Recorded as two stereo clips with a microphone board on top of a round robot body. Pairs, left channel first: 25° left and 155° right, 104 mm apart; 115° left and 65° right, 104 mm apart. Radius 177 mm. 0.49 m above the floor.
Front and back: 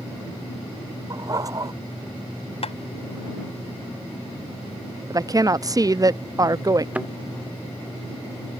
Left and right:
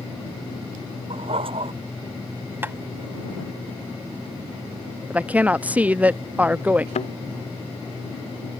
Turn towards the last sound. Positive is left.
turn(degrees=125)